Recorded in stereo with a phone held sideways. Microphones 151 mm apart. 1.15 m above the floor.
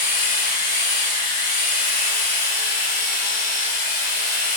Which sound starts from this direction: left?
A machine running, at 0.0 s.